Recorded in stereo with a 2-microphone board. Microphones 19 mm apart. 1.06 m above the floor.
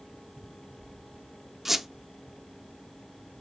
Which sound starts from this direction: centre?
A squeak, at 1.6 s.